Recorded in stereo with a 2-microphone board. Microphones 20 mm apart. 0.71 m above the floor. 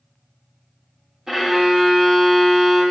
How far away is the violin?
About 0.9 m.